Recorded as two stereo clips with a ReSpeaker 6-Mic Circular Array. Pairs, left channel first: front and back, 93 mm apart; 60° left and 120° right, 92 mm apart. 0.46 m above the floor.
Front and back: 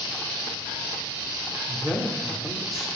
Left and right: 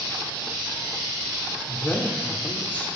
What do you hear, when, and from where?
1.7 s a man speaking: 100° left, 1.3 m